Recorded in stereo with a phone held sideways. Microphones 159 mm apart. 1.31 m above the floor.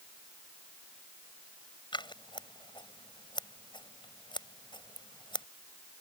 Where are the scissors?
30° left (ahead or behind).